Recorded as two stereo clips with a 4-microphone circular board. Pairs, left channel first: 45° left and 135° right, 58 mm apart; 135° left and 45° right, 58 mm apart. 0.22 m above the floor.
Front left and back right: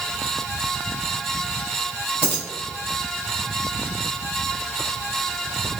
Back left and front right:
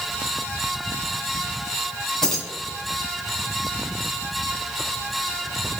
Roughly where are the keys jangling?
Ahead left.